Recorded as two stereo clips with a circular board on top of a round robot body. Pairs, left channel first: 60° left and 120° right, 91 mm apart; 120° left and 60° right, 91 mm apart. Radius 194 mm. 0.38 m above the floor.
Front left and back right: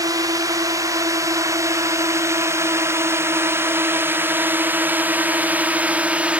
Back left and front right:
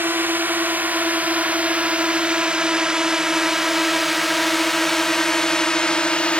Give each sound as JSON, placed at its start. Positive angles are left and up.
{"t": 0.0, "sound": "a drone", "azimuth_deg": -115}